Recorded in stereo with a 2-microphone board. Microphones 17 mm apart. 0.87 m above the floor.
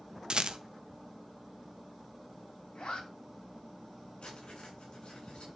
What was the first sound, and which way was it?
A rattle, 50° right (ahead or behind).